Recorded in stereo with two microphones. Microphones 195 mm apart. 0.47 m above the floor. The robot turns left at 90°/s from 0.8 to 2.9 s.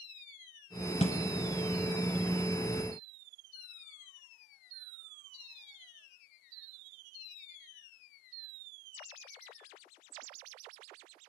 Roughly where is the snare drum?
Left.